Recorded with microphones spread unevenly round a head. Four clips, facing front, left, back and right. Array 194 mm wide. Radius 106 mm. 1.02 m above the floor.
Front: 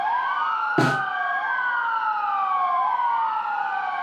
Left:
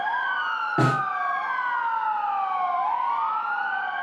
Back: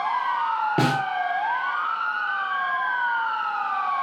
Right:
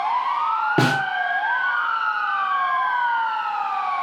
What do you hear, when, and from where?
0.8 s a snare drum: 55° right, 0.9 m